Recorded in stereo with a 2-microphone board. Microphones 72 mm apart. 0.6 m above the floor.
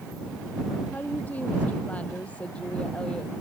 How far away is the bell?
No bell in this recording.